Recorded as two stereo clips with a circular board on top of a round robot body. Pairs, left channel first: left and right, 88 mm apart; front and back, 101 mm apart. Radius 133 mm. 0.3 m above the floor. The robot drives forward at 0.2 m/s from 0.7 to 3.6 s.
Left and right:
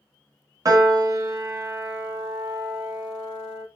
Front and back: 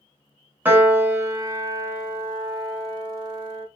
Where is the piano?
115° right, 1.0 m; by 3.6 s 145° right, 1.3 m.